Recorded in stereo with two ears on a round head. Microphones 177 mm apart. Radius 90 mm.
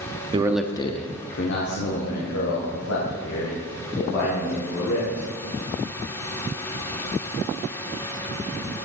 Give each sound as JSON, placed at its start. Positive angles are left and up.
{"t": 0.3, "sound": "a man speaking", "side_deg": -25, "distance_m": 0.7}